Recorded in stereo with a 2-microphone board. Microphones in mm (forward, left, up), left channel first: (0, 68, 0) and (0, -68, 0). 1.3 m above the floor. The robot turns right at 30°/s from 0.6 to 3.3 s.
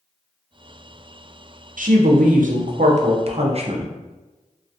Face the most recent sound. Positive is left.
turn(degrees=-50)